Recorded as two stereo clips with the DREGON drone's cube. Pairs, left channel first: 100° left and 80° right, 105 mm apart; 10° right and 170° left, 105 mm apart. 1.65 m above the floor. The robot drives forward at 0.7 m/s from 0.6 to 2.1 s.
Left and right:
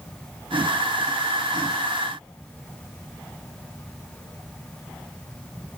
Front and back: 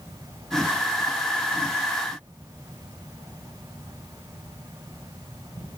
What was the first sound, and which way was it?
Only background noise.